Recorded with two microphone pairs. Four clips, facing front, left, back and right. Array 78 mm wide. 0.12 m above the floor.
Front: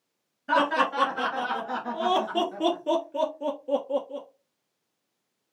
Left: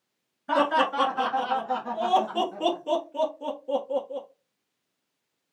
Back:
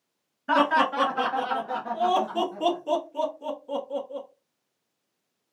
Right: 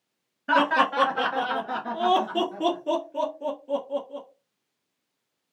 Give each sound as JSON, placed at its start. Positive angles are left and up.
{"t": 0.5, "sound": "laughter", "azimuth_deg": -105, "distance_m": 1.6}